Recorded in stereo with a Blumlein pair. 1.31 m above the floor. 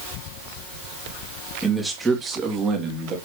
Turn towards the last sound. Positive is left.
turn(degrees=-35)